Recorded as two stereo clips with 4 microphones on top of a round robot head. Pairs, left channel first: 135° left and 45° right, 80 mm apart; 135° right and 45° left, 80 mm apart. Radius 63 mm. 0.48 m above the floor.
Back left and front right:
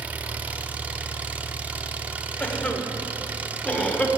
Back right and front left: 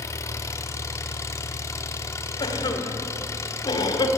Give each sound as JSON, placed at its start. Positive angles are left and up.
{"t": 0.0, "sound": "an engine running", "azimuth_deg": -105, "distance_m": 1.0}
{"t": 2.4, "sound": "a cough", "azimuth_deg": -155, "distance_m": 2.0}